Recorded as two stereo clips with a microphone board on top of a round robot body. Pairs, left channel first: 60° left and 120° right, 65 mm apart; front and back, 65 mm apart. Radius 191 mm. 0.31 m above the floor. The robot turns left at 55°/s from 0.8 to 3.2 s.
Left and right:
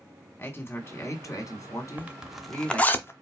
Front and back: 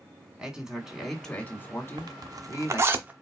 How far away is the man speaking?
About 2 m.